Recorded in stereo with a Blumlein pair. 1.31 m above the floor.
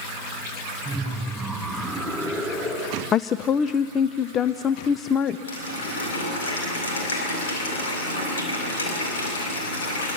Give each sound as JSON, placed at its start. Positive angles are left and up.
{"t": 0.8, "sound": "laughter", "azimuth_deg": -5, "distance_m": 4.5}
{"t": 3.1, "sound": "a woman speaking", "azimuth_deg": 25, "distance_m": 0.6}
{"t": 5.5, "sound": "a running tap", "azimuth_deg": 70, "distance_m": 5.0}